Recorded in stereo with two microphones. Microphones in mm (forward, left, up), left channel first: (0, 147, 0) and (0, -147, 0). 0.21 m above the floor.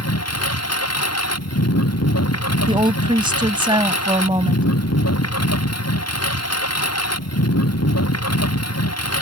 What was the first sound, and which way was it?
A lawn mower, 55° left (ahead or behind).